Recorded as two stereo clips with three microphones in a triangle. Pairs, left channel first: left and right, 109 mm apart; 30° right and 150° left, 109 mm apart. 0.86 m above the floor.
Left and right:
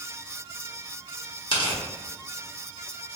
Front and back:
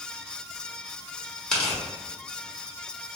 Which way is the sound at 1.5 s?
55° left.